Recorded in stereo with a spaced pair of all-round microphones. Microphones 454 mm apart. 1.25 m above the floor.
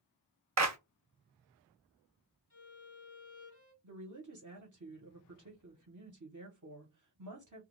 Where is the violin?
35° left (ahead or behind), 1.7 m.